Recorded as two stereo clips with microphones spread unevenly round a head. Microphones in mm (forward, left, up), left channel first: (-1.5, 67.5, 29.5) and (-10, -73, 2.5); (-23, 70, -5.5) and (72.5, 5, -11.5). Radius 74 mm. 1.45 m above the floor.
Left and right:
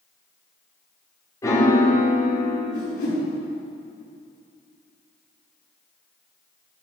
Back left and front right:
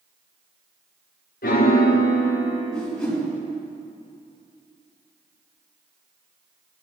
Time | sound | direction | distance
1.4 | a piano | 160° left | 1.5 m
2.7 | a whoosh | 65° left | 4.5 m